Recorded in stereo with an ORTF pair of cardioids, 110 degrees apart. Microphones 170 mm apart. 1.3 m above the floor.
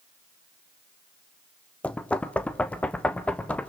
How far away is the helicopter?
No helicopter in this recording.